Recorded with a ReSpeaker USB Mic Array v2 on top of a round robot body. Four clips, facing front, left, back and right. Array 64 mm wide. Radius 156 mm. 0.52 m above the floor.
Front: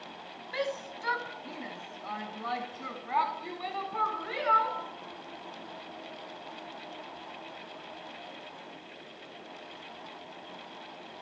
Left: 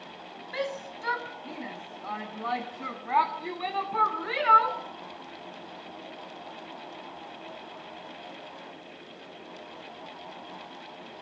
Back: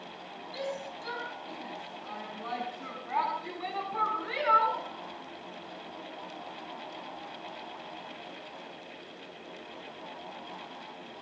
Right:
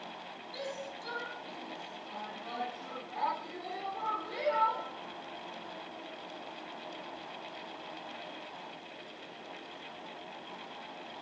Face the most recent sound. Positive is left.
turn(degrees=95)